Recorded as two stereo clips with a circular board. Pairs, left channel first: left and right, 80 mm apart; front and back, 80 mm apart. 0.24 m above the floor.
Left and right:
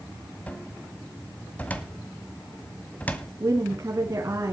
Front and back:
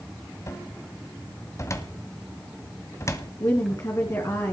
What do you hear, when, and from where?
0.5 s a cupboard door: 30° left, 1.6 m
3.4 s a woman speaking: 40° right, 3 m